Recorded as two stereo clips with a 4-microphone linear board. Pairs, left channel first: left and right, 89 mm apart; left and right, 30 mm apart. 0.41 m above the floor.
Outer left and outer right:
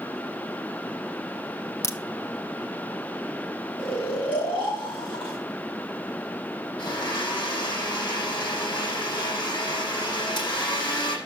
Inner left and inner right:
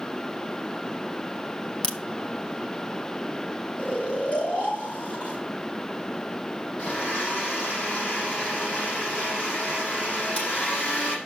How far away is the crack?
About 0.9 m.